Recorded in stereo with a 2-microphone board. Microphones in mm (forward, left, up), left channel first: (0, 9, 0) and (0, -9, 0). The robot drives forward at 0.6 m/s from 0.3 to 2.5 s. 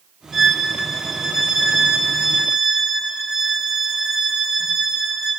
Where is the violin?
5° right (ahead or behind), 3 m.